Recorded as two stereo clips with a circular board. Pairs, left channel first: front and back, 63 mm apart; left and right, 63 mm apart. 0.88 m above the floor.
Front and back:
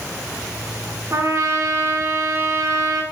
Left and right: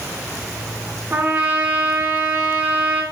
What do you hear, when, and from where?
1.1 s a trumpet: 145° right, 0.7 m